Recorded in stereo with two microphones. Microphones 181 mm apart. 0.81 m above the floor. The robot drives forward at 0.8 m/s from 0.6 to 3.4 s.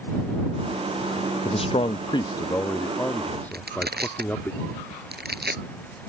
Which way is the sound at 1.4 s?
30° left (ahead or behind).